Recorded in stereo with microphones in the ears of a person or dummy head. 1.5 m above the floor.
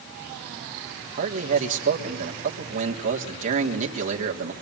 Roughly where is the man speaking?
Right.